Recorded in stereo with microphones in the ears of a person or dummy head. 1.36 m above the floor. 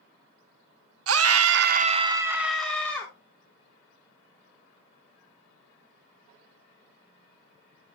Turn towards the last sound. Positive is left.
turn(degrees=10)  # may be behind; listen again after turning